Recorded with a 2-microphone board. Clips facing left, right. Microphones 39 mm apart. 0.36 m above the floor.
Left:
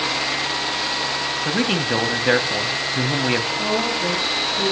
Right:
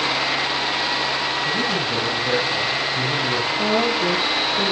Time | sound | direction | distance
1.4 | a man speaking | 60° left (ahead or behind) | 2 m
3.6 | a woman speaking | 35° right (ahead or behind) | 7 m